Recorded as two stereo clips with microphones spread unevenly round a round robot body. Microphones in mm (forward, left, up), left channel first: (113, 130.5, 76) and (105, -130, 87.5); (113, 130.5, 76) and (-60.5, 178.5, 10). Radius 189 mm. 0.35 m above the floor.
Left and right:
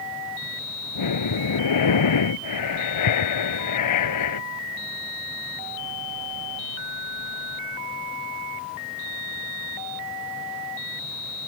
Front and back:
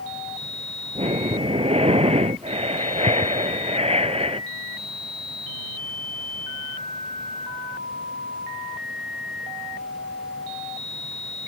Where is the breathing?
105° left.